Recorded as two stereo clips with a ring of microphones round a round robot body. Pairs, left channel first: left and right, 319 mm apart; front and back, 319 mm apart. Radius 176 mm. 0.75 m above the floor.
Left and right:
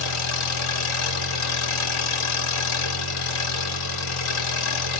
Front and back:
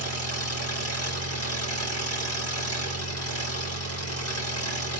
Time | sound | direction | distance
0.0 | an engine running | 50° left | 3 m